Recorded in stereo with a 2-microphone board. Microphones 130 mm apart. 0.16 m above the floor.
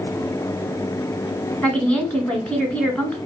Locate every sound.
1.6 s a woman speaking: 5° left (ahead or behind), 1.3 m